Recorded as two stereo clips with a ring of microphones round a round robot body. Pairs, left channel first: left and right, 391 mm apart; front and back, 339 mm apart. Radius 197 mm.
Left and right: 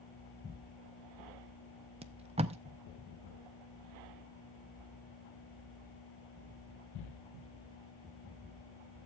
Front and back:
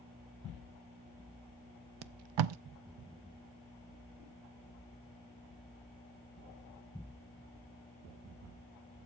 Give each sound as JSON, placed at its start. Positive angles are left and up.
{"t": 2.0, "sound": "tape being pulled", "azimuth_deg": -165, "distance_m": 0.5}